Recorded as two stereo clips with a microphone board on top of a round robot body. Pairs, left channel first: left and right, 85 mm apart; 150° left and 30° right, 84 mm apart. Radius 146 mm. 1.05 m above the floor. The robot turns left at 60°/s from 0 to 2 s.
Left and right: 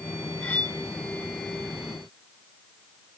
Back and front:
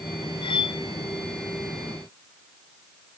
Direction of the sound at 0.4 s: 165° left.